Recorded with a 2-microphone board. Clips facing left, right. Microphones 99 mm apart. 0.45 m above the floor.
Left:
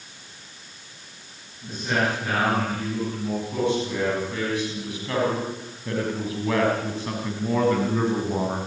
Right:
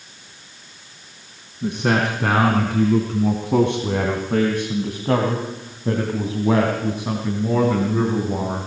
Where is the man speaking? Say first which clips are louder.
Right 5 dB; 75° right (ahead or behind), 4.5 m; by 8.7 s centre (ahead or behind), 4 m.